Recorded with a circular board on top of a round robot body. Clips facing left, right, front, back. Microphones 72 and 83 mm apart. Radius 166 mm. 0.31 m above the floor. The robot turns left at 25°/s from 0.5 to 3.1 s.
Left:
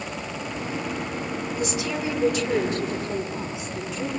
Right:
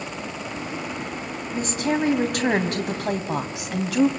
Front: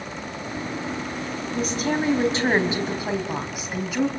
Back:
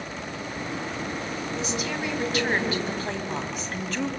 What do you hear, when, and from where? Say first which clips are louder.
1.5 s a woman speaking: right 6 dB, front 8 dB; 40° right, 3.5 m; by 4.1 s 80° right, 3.5 m